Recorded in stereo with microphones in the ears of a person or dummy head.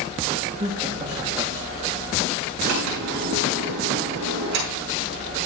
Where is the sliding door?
70° right (ahead or behind), 5.5 m.